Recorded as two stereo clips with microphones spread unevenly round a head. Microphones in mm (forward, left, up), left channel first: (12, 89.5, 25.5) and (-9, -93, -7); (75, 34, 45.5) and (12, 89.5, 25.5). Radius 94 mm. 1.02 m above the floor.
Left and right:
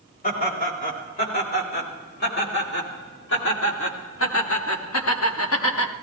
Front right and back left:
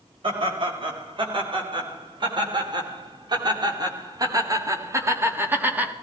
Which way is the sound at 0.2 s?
130° left.